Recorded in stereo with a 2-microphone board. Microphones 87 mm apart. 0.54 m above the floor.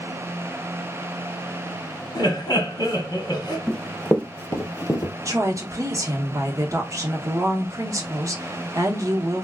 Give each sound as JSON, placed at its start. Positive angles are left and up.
{"t": 2.1, "sound": "laughter", "side_deg": 50, "distance_m": 1.4}
{"t": 3.7, "sound": "running footsteps", "side_deg": 5, "distance_m": 0.8}
{"t": 5.2, "sound": "a woman speaking", "side_deg": -40, "distance_m": 0.8}